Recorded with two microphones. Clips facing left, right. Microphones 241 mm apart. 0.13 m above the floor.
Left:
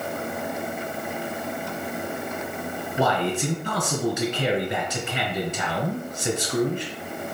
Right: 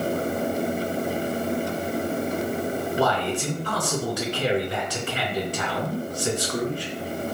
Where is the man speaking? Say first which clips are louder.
Left 3 dB; 20° left (ahead or behind), 1.2 m.